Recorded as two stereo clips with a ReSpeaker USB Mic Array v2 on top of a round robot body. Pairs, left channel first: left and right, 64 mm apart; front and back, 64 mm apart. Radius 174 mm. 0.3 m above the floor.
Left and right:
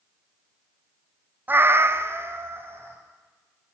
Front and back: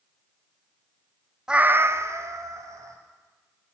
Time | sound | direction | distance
1.5 | a cat meowing | 110° right | 0.5 m